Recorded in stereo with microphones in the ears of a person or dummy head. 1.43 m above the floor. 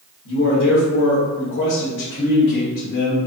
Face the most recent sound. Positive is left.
turn(degrees=60)  # may be behind; listen again after turning